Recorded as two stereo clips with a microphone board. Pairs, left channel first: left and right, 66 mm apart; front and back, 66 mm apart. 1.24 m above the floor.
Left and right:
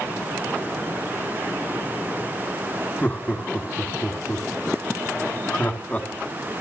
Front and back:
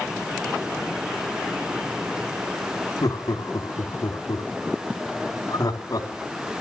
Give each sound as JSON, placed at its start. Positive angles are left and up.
{"t": 3.0, "sound": "laughter", "azimuth_deg": 25, "distance_m": 3.5}